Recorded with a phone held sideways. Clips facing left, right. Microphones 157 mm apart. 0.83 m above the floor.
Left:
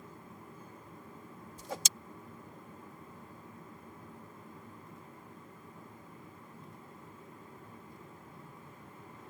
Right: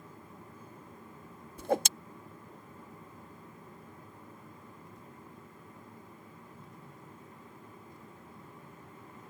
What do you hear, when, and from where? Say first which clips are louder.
1.6 s a whoosh: right 13 dB; 60° right (ahead or behind)